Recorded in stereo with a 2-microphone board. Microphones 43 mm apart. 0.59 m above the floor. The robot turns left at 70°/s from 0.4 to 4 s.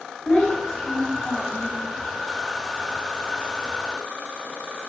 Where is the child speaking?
30° left, 2.5 m; by 1.8 s 65° right, 2.5 m.